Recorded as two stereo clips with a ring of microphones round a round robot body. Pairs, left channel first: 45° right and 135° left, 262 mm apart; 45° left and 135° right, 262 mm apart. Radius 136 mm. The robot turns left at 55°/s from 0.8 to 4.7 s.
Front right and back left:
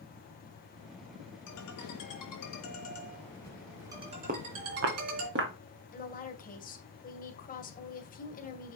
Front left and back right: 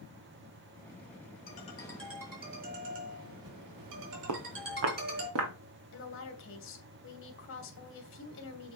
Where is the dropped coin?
No dropped coin in this recording.